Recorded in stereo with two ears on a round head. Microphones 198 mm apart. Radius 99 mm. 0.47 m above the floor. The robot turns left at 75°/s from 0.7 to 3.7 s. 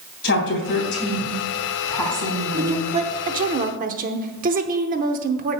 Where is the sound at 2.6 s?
20° right, 0.9 m; by 5.6 s 105° right, 0.9 m.